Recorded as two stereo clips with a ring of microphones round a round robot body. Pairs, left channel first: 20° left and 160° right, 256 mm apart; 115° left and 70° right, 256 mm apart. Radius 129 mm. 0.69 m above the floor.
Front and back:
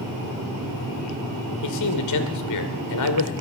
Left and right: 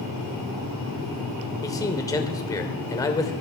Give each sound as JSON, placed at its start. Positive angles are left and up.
{"t": 1.6, "sound": "a man speaking", "azimuth_deg": 35, "distance_m": 2.0}